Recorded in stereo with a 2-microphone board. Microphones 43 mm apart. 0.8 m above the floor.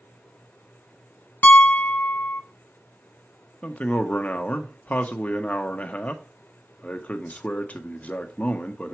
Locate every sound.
1.4 s a piano: 40° left (ahead or behind), 0.8 m
3.6 s a man speaking: 35° left (ahead or behind), 0.9 m